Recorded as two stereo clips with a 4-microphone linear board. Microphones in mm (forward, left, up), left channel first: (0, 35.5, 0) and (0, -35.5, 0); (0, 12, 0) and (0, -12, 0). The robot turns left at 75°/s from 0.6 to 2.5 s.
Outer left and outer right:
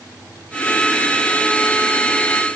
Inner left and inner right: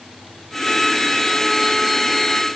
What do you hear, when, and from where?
Only background noise.